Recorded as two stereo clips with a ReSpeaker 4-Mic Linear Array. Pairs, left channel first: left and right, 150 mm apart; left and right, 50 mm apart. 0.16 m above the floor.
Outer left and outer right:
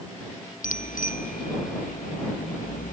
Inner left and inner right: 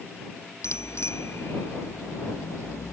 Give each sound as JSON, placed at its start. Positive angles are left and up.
{"t": 0.6, "sound": "a bicycle bell", "side_deg": 70}